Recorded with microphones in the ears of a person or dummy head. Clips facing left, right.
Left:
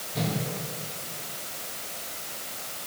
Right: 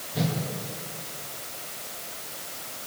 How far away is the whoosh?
About 3 m.